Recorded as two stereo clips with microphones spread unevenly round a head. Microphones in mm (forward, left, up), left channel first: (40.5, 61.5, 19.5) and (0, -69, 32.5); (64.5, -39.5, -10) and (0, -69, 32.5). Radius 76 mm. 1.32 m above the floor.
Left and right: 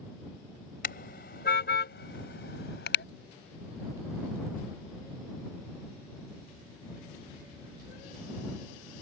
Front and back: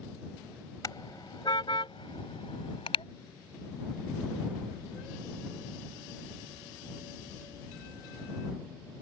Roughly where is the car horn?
Left.